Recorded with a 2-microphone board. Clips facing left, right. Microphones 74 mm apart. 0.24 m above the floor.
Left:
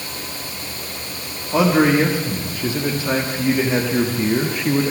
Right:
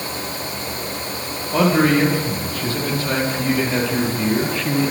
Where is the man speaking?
15° left (ahead or behind), 9 m; by 4.9 s 25° left (ahead or behind), 6 m.